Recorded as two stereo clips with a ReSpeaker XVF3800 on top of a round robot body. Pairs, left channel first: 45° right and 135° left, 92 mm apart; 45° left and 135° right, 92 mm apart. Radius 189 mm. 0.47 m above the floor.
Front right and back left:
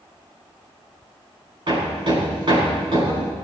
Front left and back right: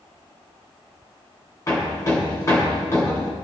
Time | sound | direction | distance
1.7 | hammering | 100° left | 5.5 m